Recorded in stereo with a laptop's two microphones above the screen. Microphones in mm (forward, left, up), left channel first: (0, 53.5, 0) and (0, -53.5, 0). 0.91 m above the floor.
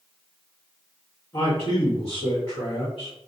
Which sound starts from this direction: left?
A man speaking, at 1.3 s.